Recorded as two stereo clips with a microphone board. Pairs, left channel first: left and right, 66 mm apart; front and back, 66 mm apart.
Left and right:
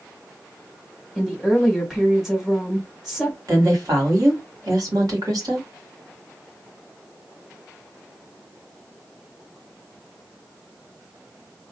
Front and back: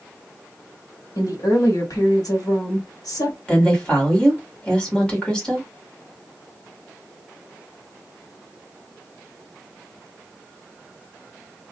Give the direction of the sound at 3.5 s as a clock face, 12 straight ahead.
2 o'clock.